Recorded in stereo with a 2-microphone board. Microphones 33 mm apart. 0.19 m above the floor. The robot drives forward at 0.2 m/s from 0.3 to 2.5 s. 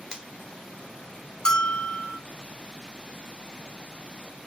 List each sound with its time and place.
0.1 s a finger snap: 20° right (ahead or behind), 0.8 m
1.4 s a bell: 25° left (ahead or behind), 0.7 m; by 2.2 s 20° left (ahead or behind), 0.8 m